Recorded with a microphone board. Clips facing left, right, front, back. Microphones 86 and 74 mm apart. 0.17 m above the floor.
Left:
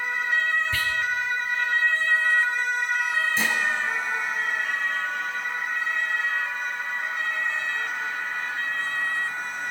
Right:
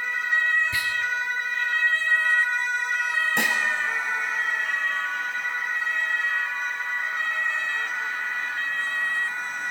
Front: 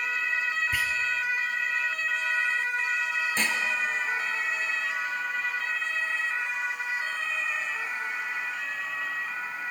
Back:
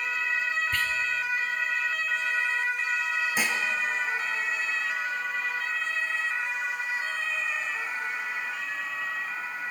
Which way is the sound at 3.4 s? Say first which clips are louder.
Right 1 dB, even; 100° right.